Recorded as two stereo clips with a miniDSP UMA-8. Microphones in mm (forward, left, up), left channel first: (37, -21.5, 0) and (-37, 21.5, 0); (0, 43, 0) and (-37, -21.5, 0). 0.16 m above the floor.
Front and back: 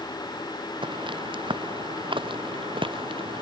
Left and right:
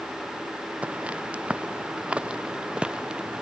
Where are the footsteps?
170° left; by 3.4 s 165° left.